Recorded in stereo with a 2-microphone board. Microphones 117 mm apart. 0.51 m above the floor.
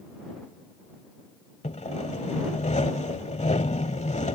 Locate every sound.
1.6 s sawing: 75° left (ahead or behind)